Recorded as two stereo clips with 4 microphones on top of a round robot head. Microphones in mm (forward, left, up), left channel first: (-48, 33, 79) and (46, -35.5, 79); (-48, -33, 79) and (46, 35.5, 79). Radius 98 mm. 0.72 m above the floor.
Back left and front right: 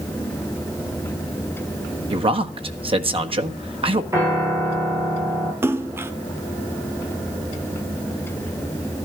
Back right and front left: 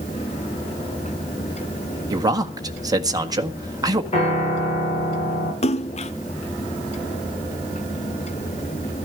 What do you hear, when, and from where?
2.1 s a man speaking: 15° right, 1.8 m
4.1 s a piano: 100° right, 10 m
5.6 s a splash: 110° right, 0.8 m